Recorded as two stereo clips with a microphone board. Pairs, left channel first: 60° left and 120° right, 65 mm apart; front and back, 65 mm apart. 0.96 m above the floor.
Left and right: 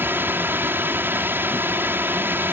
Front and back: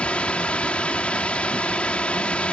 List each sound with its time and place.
0.0 s a drone: 70° right